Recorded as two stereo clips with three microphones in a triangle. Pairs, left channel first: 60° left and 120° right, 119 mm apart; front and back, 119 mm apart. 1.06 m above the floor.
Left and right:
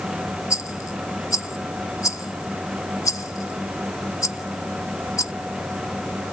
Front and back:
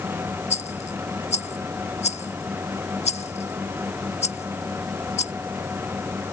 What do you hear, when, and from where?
0.5 s a rattle: straight ahead